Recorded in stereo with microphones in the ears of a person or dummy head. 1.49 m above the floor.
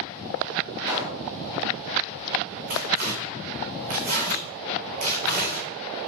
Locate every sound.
0.9 s a pop: 15° right (ahead or behind), 1.5 m
2.7 s tearing paper: 50° right (ahead or behind), 3.5 m